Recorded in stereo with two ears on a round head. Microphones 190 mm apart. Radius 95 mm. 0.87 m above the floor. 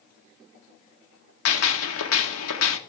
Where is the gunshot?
70° left (ahead or behind), 1.6 m.